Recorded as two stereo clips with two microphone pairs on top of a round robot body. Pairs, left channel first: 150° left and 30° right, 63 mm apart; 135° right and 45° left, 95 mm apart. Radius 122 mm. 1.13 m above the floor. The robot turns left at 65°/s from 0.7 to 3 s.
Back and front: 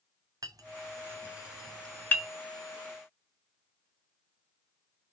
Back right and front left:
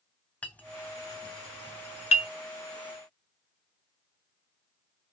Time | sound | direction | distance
0.4 | a clink | 55° right | 3 m